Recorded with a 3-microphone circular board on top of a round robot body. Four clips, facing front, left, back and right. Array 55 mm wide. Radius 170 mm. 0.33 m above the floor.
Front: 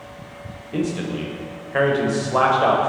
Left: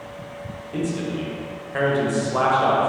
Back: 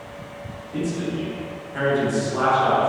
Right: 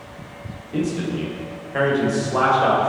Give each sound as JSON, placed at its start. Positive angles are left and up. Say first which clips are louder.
{"t": 0.7, "sound": "a man speaking", "louder": "right 2 dB, front 2 dB", "azimuth_deg": 5, "distance_m": 3.0}